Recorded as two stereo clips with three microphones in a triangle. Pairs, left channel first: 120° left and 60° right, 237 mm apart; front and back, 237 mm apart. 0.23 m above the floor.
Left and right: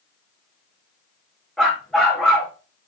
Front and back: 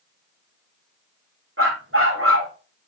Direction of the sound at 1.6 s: 150° right.